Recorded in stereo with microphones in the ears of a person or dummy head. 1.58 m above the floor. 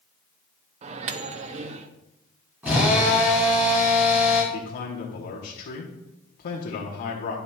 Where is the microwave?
40° right (ahead or behind), 0.6 m.